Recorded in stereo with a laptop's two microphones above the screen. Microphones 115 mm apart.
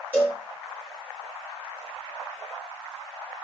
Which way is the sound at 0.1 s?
20° left (ahead or behind).